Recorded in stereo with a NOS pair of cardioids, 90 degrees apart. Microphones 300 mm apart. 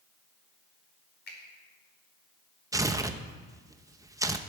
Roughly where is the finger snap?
Ahead left.